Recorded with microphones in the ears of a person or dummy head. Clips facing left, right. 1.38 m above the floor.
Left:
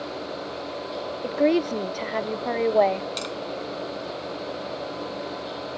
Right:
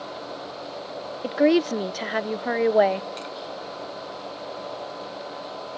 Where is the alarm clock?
No alarm clock in this recording.